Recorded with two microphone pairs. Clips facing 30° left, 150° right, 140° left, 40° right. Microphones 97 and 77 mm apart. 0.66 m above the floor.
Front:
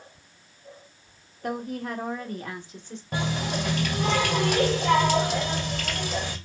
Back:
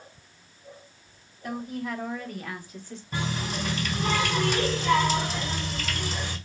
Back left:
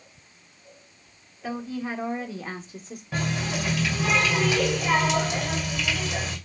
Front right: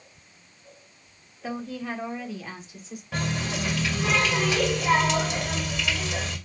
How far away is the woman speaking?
About 1.4 m.